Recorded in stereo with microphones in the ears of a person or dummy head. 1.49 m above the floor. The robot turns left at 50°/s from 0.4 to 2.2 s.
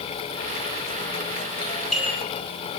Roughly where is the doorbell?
Centre.